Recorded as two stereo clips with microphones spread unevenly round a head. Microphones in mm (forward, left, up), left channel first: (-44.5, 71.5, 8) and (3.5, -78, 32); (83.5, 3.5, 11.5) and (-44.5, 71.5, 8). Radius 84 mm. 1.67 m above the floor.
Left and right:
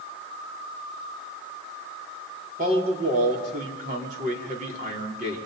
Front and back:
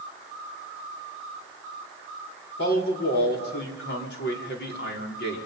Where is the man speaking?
20° right, 5 m.